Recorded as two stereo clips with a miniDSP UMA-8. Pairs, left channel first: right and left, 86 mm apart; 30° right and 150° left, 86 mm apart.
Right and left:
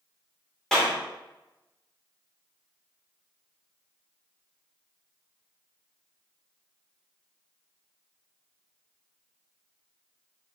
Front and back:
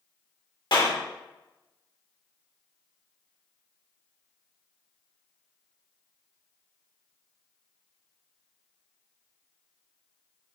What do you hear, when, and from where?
0.7 s a clap: 5° right, 2.5 m